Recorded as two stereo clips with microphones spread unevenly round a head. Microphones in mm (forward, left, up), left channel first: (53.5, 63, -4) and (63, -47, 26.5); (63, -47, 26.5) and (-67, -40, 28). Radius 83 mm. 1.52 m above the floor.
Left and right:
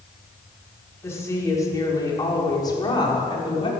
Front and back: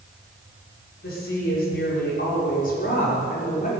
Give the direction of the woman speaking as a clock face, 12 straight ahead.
11 o'clock.